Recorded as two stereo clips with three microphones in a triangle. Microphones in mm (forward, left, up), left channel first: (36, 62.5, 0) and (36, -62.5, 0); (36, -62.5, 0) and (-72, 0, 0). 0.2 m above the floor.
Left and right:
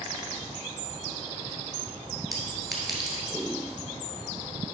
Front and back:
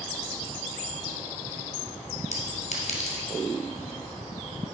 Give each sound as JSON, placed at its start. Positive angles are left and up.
{"t": 2.3, "sound": "a clink", "azimuth_deg": 0, "distance_m": 1.9}